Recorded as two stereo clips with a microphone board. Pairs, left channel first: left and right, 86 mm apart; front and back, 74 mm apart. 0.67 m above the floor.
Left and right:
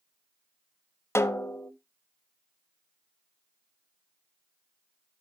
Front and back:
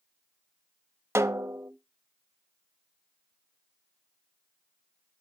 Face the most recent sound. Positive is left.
turn(degrees=140)